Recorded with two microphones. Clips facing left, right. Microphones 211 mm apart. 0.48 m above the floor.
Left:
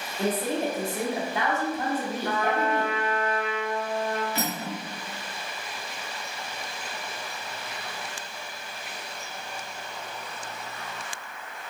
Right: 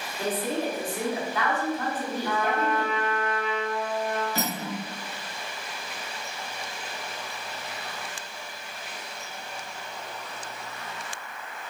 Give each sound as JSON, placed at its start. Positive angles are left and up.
{"t": 0.2, "sound": "a woman speaking", "side_deg": 25, "distance_m": 0.9}
{"t": 2.2, "sound": "a trumpet", "side_deg": 55, "distance_m": 1.1}
{"t": 4.3, "sound": "cutlery clinking", "side_deg": -45, "distance_m": 1.5}